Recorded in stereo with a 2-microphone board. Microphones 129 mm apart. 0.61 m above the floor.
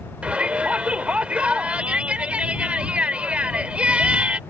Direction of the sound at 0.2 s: 10° right (ahead or behind).